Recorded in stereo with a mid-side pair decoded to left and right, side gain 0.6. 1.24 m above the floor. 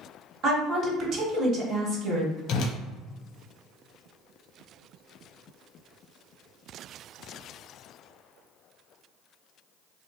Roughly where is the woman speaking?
Ahead right.